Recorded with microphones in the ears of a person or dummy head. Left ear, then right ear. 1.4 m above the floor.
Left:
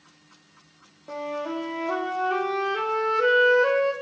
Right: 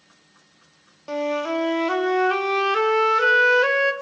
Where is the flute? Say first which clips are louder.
Right 6 dB; 60° right (ahead or behind), 1.4 m.